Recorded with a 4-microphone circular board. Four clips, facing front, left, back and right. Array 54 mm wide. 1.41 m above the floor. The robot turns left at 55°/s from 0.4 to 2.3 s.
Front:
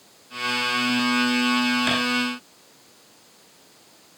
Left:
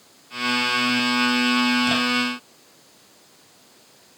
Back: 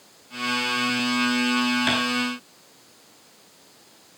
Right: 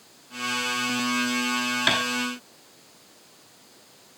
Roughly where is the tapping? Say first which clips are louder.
Even, even; right.